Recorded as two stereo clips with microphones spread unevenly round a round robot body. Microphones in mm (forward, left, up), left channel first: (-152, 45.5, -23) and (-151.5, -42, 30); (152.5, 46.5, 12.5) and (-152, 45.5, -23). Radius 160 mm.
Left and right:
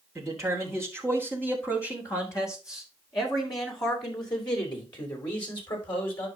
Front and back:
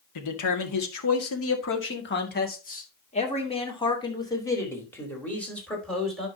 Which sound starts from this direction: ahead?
A man speaking, at 0.1 s.